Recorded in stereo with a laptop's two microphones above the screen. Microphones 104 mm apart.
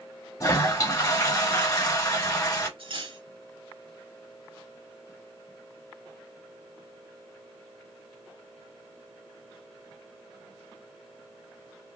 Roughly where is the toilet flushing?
Left.